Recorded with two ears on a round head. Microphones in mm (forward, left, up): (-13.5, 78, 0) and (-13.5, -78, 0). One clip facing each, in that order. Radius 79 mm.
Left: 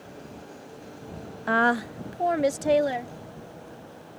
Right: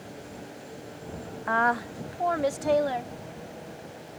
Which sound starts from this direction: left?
A woman speaking, at 1.5 s.